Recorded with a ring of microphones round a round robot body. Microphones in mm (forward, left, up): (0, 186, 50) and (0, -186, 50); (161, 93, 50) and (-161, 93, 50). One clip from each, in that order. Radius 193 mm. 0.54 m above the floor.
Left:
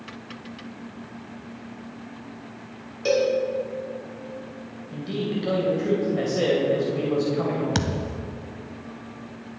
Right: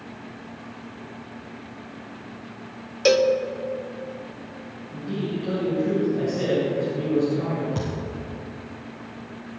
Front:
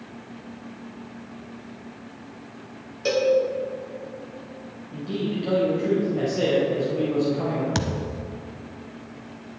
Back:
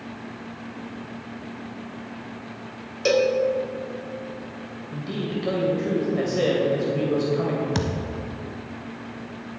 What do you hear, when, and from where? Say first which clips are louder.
3.0 s a cowbell: right 4 dB, back 1 dB; 115° right, 1.0 m
4.9 s a man speaking: left 1 dB, front 2 dB; 130° left, 3 m
7.8 s a thud: left 3 dB, even; 75° left, 1.0 m